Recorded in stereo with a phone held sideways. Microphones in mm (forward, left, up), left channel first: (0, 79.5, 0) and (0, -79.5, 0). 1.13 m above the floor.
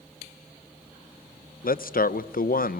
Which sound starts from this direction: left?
A man speaking, at 1.6 s.